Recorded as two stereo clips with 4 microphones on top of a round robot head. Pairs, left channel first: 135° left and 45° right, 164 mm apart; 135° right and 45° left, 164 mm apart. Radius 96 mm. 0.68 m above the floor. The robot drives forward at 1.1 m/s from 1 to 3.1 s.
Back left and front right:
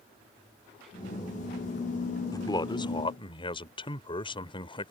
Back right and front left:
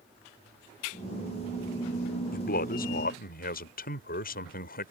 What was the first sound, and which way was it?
A man speaking, 160° right.